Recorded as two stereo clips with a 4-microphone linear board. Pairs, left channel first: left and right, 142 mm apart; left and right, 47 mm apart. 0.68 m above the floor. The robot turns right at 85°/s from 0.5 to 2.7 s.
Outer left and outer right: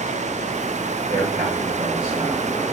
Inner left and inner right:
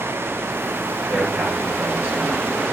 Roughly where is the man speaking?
Behind right.